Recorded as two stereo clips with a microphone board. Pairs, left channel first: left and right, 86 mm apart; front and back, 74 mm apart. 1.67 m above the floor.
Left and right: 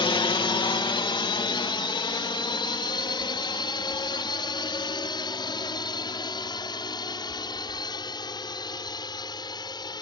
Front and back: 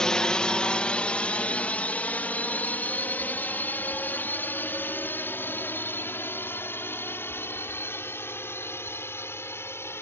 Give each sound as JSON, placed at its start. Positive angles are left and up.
{"t": 0.0, "sound": "a drone", "azimuth_deg": 80}